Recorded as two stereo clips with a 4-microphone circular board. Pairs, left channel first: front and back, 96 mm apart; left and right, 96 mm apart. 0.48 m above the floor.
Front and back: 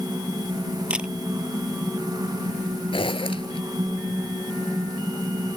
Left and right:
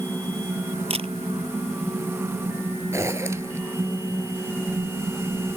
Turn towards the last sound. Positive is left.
turn(degrees=-30)